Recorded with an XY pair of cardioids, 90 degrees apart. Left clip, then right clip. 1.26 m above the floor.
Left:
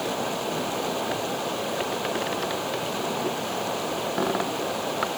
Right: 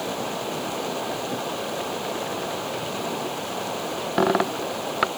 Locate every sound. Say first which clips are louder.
0.0 s running water: left 1 dB; straight ahead